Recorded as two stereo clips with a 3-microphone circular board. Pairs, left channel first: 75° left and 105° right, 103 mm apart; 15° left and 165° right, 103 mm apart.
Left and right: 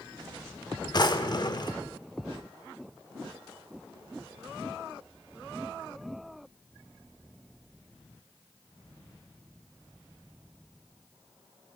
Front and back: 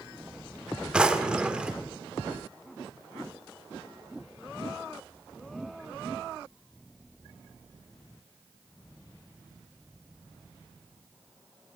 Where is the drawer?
115° left, 0.8 m.